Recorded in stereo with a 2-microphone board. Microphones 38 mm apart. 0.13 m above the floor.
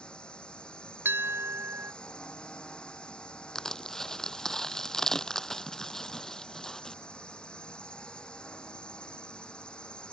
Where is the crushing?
10° left (ahead or behind).